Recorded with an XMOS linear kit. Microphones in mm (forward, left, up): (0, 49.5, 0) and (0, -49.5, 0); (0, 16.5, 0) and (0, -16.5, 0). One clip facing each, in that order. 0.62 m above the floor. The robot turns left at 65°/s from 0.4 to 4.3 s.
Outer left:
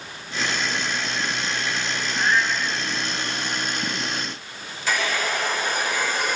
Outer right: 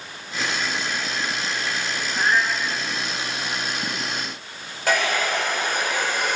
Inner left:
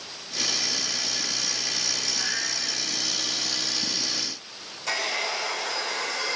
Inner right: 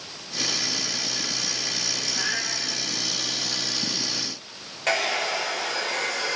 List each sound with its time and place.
2.1 s a cat meowing: 155° right, 1.9 m; by 2.7 s 170° left, 1.9 m
4.9 s a hair dryer: 50° right (ahead or behind), 4 m